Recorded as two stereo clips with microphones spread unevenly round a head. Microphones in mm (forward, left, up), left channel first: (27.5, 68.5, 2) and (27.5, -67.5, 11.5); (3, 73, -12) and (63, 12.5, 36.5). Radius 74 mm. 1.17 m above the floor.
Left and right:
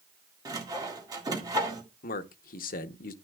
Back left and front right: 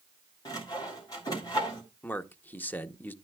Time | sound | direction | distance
0.5 | sawing | 155° right | 1.7 m
2.0 | a man speaking | 75° left | 0.8 m